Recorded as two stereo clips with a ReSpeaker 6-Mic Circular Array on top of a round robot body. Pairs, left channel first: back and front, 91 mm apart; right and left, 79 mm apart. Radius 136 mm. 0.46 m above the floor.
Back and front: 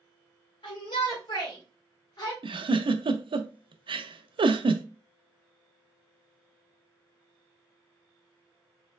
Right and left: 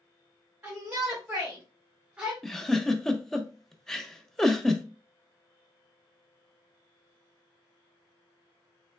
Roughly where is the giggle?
Ahead.